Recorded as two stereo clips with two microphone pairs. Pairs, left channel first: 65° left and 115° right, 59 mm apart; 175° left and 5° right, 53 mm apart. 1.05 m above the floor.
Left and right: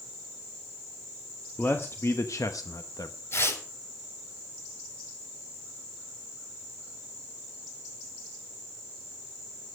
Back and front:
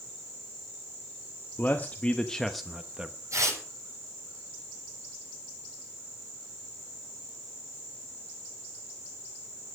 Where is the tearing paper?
20° left, 6.5 m.